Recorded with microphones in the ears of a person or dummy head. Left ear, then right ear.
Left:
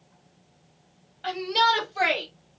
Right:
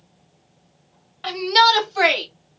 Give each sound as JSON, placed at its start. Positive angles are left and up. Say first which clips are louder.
{"t": 1.2, "sound": "a shout", "louder": "right 7 dB", "side_deg": -40, "distance_m": 1.6}